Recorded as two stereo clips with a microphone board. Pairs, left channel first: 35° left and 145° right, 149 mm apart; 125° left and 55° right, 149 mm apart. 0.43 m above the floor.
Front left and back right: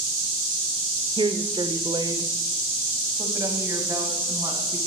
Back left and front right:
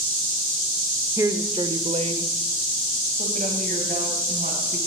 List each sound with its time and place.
1.2 s a woman speaking: 115° right, 0.9 m; by 4.8 s 75° right, 3.5 m